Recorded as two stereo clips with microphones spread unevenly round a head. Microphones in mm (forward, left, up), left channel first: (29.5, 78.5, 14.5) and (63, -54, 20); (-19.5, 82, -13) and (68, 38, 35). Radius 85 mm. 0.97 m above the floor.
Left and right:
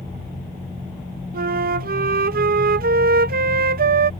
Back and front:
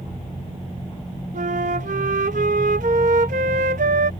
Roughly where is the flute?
Ahead right.